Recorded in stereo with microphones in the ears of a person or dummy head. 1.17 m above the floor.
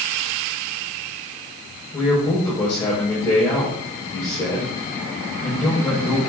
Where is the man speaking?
25° left (ahead or behind), 5 m.